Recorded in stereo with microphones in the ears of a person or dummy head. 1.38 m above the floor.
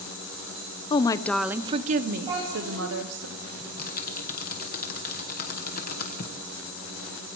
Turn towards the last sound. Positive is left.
turn(degrees=50)  # may be behind; listen again after turning